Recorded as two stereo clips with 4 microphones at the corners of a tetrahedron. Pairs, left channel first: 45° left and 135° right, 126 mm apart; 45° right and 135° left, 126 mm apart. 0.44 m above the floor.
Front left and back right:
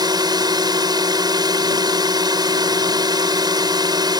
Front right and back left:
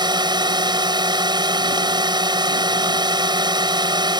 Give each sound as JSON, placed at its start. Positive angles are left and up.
{"t": 0.0, "sound": "a drone", "azimuth_deg": 180}